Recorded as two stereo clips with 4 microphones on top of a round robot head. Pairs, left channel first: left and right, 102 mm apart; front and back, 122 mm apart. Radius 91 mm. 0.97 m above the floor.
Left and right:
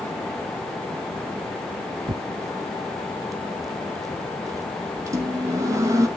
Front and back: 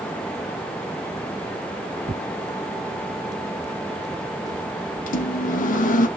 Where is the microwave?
25° right, 0.8 m.